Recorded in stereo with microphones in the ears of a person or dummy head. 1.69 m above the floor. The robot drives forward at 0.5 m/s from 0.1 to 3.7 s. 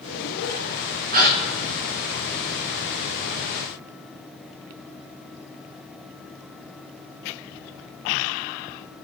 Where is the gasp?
50° right (ahead or behind), 3 m.